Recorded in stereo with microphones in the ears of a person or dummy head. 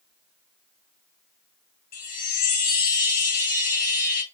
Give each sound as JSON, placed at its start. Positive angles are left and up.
{"t": 1.9, "sound": "a chime", "side_deg": 35, "distance_m": 1.0}